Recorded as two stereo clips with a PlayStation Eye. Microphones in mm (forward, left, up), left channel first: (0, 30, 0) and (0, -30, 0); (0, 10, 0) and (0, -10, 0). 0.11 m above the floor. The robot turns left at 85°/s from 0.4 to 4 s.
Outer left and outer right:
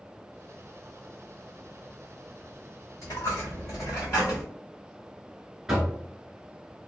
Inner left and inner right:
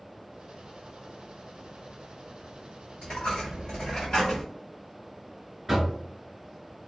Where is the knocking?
10° right (ahead or behind), 1.0 m.